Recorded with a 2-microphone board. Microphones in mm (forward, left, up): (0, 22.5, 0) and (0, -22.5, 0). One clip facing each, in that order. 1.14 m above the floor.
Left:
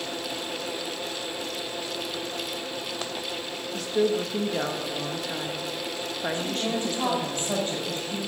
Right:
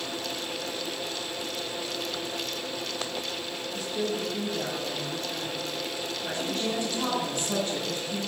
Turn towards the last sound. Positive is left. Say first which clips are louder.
# right 1 dB
turn(degrees=35)  # may be behind; listen again after turning